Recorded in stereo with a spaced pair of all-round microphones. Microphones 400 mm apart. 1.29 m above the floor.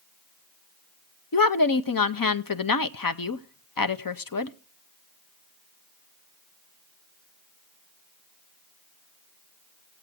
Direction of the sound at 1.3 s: 55° left (ahead or behind).